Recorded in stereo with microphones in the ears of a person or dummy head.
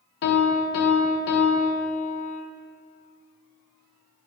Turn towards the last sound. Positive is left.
turn(degrees=65)  # may be behind; listen again after turning